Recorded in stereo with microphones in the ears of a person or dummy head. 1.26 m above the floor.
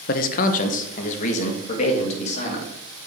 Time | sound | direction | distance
0.1 | a man speaking | 50° left (ahead or behind) | 0.7 m